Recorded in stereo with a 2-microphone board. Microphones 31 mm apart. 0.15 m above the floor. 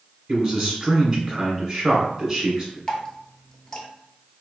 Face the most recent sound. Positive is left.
turn(degrees=30)  # may be behind; listen again after turning